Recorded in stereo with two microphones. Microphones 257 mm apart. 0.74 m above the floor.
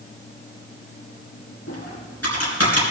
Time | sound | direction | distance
1.7 | typing on a keyboard | 80° left | 4 m